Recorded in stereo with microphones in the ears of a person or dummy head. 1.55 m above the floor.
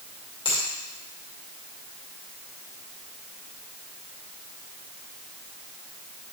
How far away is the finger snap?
About 2 m.